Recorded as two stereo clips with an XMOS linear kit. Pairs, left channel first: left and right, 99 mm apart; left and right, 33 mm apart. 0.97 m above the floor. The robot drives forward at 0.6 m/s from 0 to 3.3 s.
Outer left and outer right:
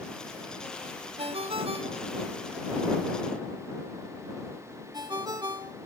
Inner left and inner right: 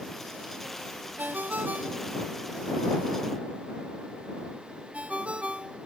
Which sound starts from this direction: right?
A ringtone, at 1.2 s.